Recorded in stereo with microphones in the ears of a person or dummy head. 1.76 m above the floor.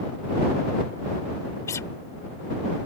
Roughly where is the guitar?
Centre.